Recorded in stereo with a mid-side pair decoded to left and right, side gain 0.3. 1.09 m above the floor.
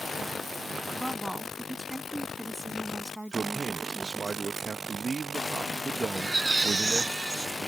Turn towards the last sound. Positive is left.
turn(degrees=-40)